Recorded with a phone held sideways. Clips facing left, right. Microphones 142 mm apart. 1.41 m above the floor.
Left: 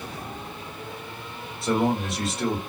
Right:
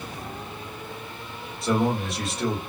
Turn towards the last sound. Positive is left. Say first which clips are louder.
# even
turn(degrees=0)  # may be behind; listen again after turning